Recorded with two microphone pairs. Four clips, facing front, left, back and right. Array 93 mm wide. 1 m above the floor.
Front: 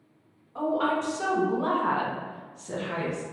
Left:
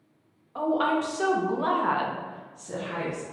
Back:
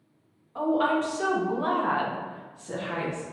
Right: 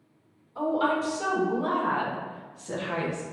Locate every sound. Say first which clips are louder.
0.6 s a woman speaking: left 1 dB, back 2 dB; 90° left, 1.4 m; by 3.2 s 90° right, 0.8 m